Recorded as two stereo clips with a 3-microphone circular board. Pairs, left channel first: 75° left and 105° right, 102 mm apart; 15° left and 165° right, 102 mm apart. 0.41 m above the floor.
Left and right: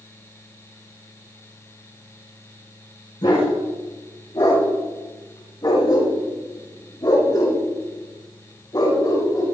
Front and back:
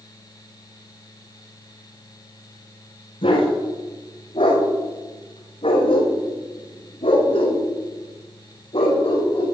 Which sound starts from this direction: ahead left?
A dog barking, at 3.2 s.